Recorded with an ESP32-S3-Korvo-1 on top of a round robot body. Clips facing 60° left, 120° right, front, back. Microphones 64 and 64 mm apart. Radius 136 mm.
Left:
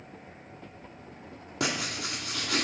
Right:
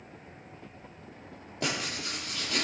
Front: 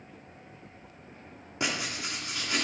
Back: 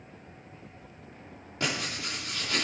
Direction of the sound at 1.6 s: 75° left.